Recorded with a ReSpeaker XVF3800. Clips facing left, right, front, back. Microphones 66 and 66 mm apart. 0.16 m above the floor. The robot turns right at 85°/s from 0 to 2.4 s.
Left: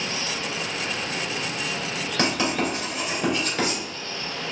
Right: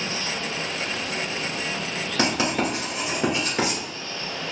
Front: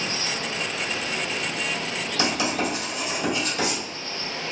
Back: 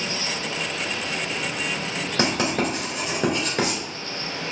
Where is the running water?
20° right, 1.9 m; by 4.5 s 175° right, 1.9 m.